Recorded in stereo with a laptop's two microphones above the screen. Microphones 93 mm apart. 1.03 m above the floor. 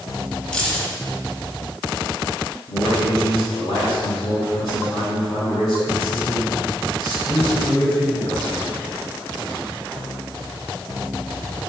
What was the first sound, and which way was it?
Keys jangling, 10° left (ahead or behind).